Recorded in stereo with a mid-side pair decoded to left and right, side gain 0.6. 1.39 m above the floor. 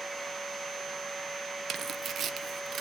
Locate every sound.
0.0 s a machine running: 15° right, 1.2 m
1.7 s tearing paper: 40° right, 0.9 m